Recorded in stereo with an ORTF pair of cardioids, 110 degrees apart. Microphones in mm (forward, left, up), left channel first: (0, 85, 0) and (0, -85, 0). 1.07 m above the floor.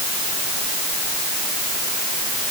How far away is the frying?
I don't hear frying.